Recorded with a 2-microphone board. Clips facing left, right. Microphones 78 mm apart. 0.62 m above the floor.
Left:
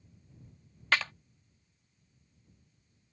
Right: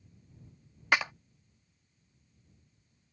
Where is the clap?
15° right (ahead or behind).